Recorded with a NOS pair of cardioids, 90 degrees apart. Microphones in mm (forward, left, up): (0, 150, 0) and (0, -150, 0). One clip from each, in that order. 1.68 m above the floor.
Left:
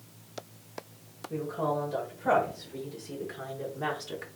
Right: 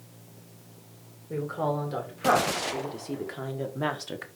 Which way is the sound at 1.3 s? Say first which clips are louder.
Right 1 dB; 55° right.